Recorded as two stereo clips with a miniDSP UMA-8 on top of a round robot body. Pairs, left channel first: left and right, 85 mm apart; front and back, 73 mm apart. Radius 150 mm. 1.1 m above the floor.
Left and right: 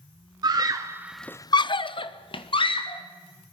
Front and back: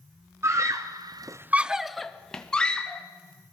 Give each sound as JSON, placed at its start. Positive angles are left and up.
{"t": 0.4, "sound": "a scream", "azimuth_deg": -130, "distance_m": 1.2}